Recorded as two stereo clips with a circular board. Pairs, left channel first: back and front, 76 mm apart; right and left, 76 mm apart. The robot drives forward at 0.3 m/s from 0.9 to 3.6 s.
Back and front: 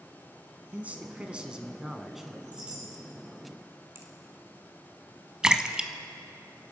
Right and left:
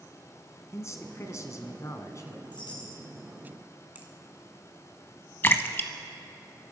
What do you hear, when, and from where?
0.7 s a man speaking: 65° right, 1.4 m; by 2.4 s 90° right, 1.4 m
2.5 s a chime: 75° right, 3 m; by 3.0 s 80° right, 3 m
4.0 s a finger snap: 30° left, 1.8 m
5.4 s a splash: 70° right, 0.8 m